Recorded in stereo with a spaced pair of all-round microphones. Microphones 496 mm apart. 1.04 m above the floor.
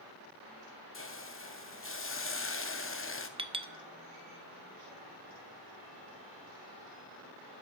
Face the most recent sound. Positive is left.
turn(degrees=-10)  # may be behind; listen again after turning